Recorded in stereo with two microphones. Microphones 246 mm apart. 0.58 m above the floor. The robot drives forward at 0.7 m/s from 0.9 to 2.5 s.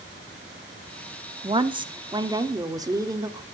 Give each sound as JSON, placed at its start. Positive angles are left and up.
{"t": 1.4, "sound": "a woman speaking", "side_deg": -20, "distance_m": 1.0}